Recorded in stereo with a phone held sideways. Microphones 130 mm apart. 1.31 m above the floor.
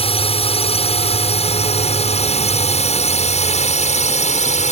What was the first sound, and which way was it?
A drone, 50° left (ahead or behind).